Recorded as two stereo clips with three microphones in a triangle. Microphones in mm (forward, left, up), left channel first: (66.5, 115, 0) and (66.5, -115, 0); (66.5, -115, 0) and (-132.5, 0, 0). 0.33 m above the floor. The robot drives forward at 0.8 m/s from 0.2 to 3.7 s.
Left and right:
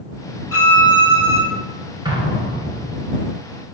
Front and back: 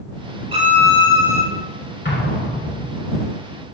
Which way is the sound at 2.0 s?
25° right.